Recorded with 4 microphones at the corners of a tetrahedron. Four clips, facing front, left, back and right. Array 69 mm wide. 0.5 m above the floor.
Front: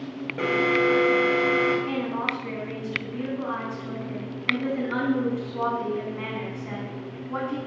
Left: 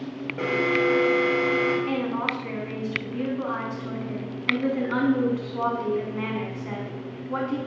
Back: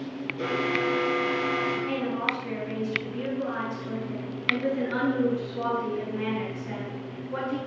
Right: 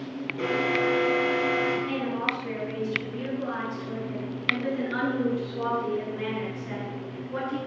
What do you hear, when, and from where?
0.4 s an alarm: 35° left, 4 m
1.9 s a woman speaking: 70° left, 5.5 m